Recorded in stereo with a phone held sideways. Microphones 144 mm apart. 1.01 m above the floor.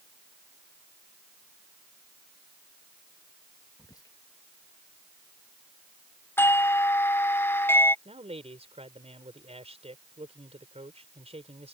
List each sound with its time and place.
3.8 s whispering: 25° left (ahead or behind)
6.4 s a doorbell: 15° left (ahead or behind)
8.1 s a man speaking: 45° right (ahead or behind)